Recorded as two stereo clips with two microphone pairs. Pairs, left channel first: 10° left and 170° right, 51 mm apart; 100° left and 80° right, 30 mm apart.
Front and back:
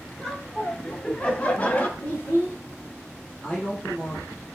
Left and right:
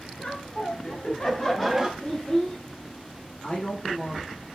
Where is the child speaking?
60° left, 1.5 m.